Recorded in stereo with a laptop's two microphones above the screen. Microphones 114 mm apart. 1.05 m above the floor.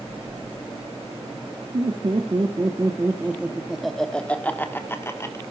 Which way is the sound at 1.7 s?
50° right (ahead or behind).